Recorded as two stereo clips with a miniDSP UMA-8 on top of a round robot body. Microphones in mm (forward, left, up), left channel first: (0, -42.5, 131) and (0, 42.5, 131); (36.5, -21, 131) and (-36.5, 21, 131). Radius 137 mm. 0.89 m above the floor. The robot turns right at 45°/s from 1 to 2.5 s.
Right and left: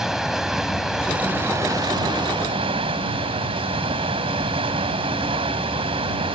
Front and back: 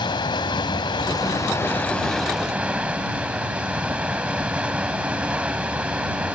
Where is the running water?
5° left; by 6.4 s 70° left.